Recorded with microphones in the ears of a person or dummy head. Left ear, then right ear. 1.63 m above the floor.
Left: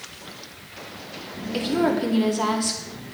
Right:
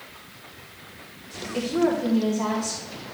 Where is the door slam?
No door slam in this recording.